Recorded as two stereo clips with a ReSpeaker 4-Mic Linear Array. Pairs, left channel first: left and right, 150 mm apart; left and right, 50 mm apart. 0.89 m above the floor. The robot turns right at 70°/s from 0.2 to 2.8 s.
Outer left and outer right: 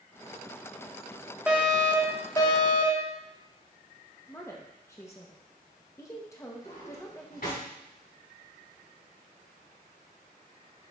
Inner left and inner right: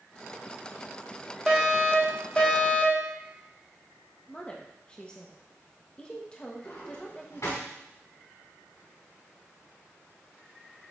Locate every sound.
1.5 s a fire alarm: 20° right, 1.6 m; by 3.1 s 75° left, 1.6 m
4.3 s a woman speaking: 20° left (ahead or behind), 0.9 m
6.6 s a drawer: 85° left, 3.5 m